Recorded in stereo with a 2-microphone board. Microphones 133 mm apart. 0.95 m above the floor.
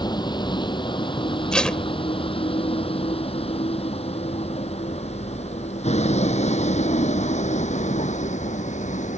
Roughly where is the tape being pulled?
Centre.